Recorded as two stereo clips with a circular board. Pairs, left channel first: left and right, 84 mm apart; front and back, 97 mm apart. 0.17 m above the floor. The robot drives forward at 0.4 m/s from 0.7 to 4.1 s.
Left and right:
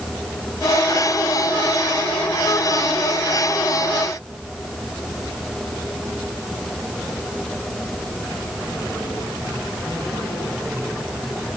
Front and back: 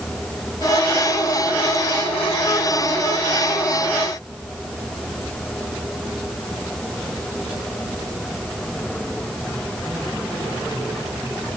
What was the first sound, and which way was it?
Only background noise.